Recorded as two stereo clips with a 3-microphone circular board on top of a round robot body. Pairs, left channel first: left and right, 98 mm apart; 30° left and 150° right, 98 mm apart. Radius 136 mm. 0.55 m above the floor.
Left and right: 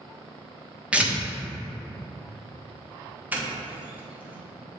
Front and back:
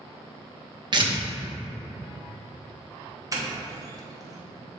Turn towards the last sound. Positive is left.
turn(degrees=-150)